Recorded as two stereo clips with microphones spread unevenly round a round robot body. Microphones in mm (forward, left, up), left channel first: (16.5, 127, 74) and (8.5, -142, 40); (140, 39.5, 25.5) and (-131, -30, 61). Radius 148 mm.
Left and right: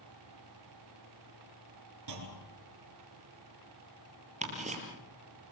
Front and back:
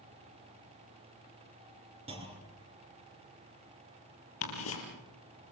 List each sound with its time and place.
2.1 s a clunk: 95° right, 5 m
4.4 s ticking: 25° right, 6 m